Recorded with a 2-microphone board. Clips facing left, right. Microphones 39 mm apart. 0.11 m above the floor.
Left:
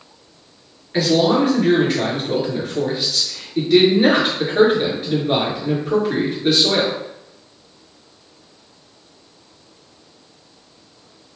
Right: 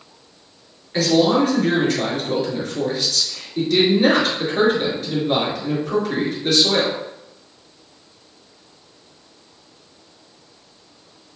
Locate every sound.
0.9 s a man speaking: 15° left (ahead or behind), 1.5 m